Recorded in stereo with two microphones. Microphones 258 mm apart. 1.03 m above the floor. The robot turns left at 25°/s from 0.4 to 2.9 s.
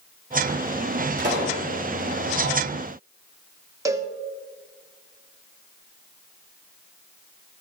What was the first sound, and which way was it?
A pop, 45° right (ahead or behind).